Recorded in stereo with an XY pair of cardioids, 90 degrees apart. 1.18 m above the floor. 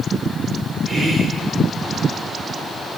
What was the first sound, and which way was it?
Whispering, 50° right.